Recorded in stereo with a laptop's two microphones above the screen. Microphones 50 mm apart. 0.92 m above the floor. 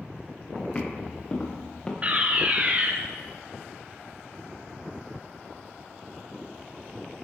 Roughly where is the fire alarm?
Right.